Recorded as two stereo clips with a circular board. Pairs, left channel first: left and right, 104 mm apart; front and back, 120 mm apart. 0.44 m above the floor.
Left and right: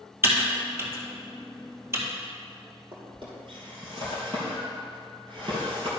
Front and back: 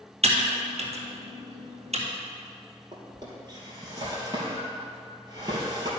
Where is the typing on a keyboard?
155° right, 1.8 m.